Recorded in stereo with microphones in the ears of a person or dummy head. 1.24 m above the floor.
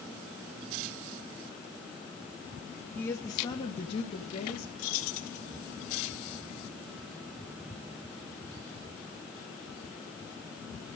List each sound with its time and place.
3.0 s a woman speaking: 5° left (ahead or behind), 1.4 m; by 4.7 s 35° left (ahead or behind), 3 m
4.8 s keys jangling: 45° left (ahead or behind), 1.8 m